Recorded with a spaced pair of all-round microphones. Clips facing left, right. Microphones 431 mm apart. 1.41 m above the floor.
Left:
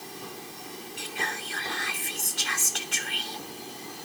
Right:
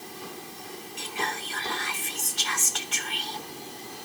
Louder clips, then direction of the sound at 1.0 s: Right 3 dB; 15° right (ahead or behind).